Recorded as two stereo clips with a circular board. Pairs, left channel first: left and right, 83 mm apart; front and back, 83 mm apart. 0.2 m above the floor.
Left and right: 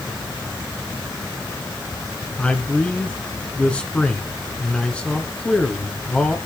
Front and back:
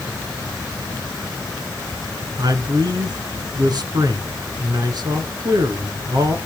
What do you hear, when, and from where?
2.4 s a man speaking: 165° left, 1.8 m